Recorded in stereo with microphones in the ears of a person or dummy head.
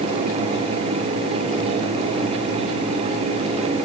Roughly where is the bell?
I don't hear a bell.